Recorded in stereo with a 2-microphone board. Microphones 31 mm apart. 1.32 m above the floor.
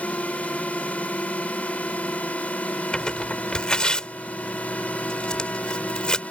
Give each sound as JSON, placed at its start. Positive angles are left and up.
{"t": 0.0, "sound": "a drone", "side_deg": 60}
{"t": 2.9, "sound": "tearing paper", "side_deg": 35}